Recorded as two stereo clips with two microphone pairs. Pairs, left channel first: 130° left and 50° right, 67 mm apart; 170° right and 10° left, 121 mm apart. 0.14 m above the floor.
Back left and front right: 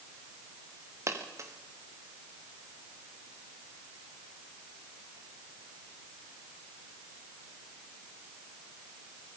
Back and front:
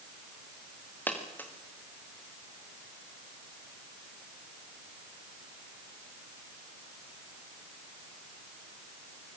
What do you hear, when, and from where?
1.1 s a dropped coin: 95° right, 4 m